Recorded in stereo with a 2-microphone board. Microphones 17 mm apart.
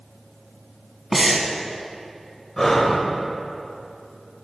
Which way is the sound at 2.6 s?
25° left (ahead or behind).